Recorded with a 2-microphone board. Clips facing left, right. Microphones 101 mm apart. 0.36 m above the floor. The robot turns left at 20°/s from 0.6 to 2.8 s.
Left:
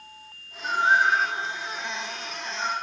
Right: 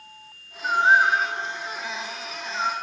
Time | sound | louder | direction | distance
0.6 | a bird | right 3 dB | 40° right (ahead or behind) | 3 m